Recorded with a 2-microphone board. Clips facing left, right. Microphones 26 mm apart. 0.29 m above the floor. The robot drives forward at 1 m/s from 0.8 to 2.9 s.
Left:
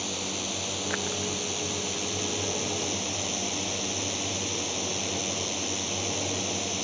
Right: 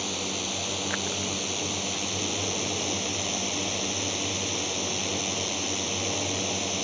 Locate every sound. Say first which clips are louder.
0.0 s a drone: right 2 dB; 5° right (ahead or behind)